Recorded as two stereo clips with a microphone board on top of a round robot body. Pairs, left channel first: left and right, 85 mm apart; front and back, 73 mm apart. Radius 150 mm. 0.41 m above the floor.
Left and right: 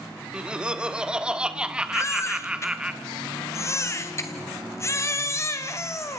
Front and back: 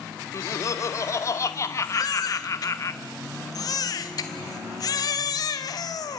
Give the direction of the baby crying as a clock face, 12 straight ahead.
11 o'clock.